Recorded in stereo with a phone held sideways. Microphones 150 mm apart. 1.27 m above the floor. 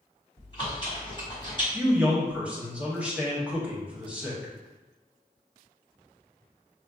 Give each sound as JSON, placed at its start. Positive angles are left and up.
{"t": 0.4, "sound": "chewing", "side_deg": 30, "distance_m": 1.4}
{"t": 1.7, "sound": "a man speaking", "side_deg": -10, "distance_m": 1.2}